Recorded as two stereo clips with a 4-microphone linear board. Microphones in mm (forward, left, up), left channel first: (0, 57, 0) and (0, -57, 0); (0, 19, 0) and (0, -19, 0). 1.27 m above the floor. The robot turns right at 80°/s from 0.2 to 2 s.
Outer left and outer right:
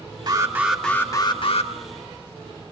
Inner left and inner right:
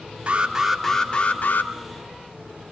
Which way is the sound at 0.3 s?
40° right.